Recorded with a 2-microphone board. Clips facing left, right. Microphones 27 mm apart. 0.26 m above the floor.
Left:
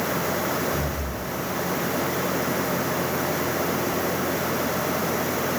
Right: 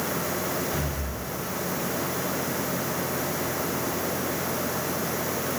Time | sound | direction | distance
0.7 | breathing | 25° right (ahead or behind) | 1.8 m